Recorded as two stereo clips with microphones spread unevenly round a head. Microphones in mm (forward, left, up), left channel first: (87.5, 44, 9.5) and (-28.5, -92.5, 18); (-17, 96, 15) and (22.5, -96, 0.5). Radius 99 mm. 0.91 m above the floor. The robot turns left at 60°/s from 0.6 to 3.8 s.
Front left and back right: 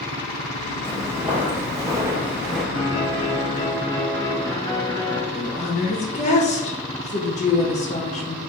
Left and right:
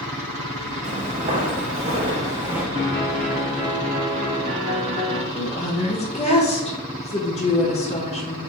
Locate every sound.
0.8 s footsteps: 25° right, 1.4 m; by 2.6 s 15° left, 0.8 m
2.8 s a piano: 40° left, 1.9 m; by 5.2 s 25° right, 1.9 m
5.3 s a woman speaking: 55° left, 0.9 m